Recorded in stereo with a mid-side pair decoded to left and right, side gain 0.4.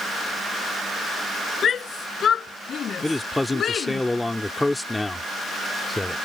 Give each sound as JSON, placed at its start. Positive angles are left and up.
{"t": 1.6, "sound": "a shout", "azimuth_deg": 55}
{"t": 3.0, "sound": "a man speaking", "azimuth_deg": 15}